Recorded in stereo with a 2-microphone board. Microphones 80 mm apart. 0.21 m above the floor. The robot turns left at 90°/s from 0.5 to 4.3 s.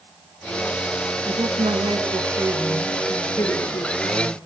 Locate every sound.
1.2 s a woman speaking: 45° right, 3.5 m; by 4.4 s 40° left, 3.5 m